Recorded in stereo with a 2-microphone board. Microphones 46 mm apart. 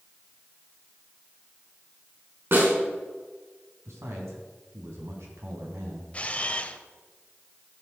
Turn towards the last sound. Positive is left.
turn(degrees=30)  # may be behind; listen again after turning